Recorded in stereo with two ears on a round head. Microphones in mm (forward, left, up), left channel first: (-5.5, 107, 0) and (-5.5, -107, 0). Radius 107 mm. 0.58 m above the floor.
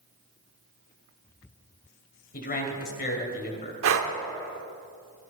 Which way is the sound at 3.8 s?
60° right (ahead or behind).